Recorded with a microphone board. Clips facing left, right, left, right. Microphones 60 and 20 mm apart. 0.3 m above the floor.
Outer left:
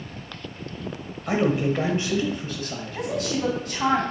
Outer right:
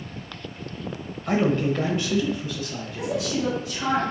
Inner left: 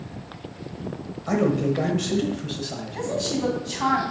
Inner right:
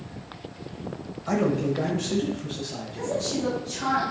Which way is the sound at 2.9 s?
55° left (ahead or behind).